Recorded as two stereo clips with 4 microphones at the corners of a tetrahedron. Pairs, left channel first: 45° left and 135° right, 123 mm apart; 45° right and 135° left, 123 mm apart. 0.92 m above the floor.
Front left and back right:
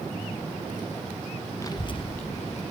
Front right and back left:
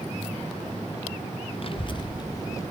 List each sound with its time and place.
1.6 s a child speaking: 20° right, 0.6 m; by 2.6 s 20° left, 1.1 m